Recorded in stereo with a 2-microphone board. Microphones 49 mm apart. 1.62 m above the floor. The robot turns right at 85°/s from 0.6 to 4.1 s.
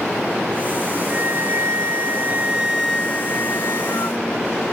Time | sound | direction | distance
1.1 | a flute | 145° right | ?